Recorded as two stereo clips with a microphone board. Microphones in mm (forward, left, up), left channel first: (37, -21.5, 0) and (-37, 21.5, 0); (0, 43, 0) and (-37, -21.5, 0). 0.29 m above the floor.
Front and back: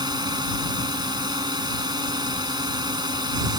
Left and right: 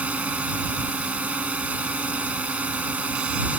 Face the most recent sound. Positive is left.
turn(degrees=170)